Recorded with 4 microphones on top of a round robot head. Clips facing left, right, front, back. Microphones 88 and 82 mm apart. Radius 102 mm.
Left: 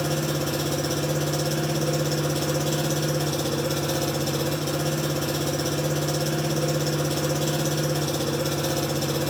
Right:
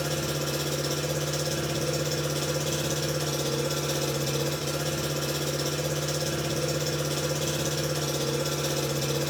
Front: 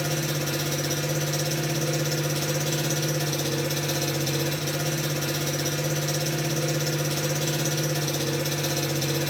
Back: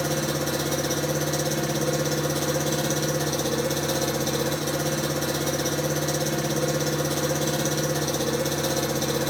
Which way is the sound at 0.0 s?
130° left.